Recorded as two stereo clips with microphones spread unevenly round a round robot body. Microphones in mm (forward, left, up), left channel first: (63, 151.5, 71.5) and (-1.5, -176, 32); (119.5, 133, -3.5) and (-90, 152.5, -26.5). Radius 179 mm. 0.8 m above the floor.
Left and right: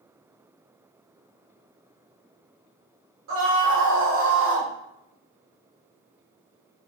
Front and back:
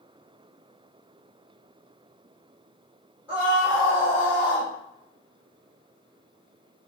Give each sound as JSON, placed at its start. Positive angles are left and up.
{"t": 3.3, "sound": "a scream", "azimuth_deg": -105, "distance_m": 1.6}